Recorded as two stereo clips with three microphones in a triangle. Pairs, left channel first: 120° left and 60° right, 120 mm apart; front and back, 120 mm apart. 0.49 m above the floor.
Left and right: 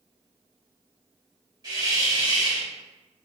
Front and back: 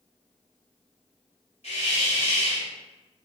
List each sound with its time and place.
1.6 s a hiss: 5° right, 1.3 m